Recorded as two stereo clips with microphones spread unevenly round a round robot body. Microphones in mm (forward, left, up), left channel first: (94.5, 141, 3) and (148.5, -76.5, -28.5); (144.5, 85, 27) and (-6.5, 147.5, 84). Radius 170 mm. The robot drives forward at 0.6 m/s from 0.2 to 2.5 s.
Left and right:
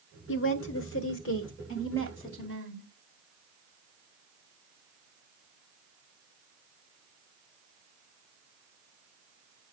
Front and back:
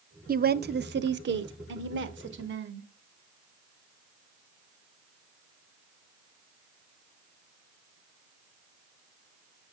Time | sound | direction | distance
0.3 | a woman speaking | 120° left | 0.8 m